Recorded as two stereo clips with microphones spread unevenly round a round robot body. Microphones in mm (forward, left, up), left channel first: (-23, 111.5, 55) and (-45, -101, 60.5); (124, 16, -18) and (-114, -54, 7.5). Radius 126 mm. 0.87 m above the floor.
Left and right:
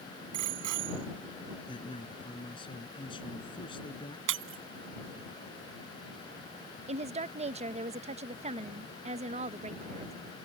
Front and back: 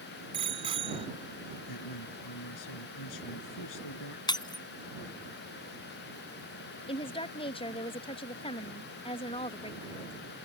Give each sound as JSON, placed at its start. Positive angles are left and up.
{"t": 0.3, "sound": "a bicycle bell", "azimuth_deg": -95}
{"t": 1.7, "sound": "a man speaking", "azimuth_deg": 15}
{"t": 4.3, "sound": "breaking glass", "azimuth_deg": -60}
{"t": 6.9, "sound": "a woman speaking", "azimuth_deg": -40}